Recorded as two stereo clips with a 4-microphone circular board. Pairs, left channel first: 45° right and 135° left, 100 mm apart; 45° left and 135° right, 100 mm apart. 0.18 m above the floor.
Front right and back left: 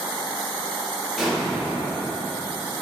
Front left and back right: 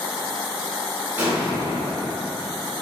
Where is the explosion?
130° right, 1.7 m.